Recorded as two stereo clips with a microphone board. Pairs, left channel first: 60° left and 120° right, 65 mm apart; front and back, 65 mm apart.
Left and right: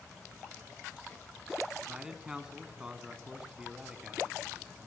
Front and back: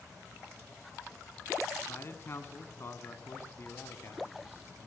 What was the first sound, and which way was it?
A man speaking, 40° right.